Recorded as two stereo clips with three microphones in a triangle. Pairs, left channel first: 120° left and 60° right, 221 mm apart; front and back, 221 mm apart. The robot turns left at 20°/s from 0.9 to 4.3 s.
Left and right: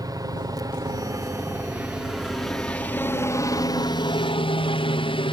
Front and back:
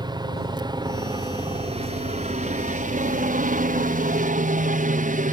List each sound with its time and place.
0.0 s a helicopter: 125° right; by 5.3 s 170° left